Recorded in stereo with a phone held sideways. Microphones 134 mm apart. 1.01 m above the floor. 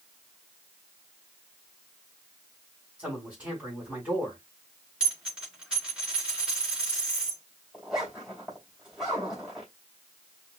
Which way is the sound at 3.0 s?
10° right (ahead or behind).